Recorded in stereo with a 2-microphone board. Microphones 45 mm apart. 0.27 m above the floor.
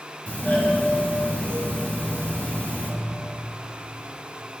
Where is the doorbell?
35° left (ahead or behind), 2.5 m.